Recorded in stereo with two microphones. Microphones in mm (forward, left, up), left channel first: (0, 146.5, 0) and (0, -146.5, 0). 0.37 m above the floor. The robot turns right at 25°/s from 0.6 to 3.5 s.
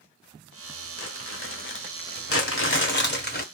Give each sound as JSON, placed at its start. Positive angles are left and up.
{"t": 1.0, "sound": "crumpling", "azimuth_deg": 105, "distance_m": 0.8}
{"t": 2.3, "sound": "crumpling", "side_deg": 50, "distance_m": 1.3}